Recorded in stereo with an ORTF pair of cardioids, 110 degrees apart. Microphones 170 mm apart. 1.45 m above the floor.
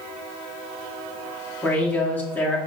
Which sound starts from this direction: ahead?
A man speaking, at 1.6 s.